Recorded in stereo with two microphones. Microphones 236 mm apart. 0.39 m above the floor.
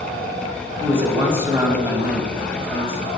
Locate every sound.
0.8 s a man speaking: 10° right (ahead or behind), 3 m